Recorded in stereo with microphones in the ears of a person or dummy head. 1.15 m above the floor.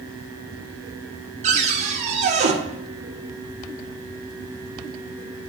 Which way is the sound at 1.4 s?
35° right (ahead or behind).